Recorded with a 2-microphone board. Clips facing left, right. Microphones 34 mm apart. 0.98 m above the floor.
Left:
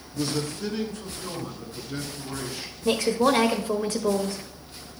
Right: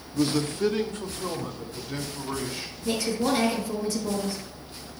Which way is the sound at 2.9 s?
45° left (ahead or behind).